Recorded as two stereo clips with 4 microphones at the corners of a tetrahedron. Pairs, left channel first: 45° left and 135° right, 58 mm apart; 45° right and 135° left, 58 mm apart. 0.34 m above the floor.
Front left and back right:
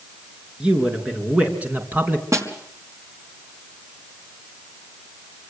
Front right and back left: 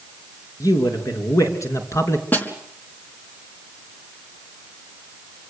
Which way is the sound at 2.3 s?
105° right.